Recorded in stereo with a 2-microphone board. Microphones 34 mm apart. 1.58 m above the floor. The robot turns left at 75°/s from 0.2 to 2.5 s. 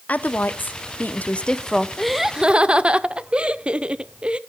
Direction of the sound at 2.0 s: 10° left.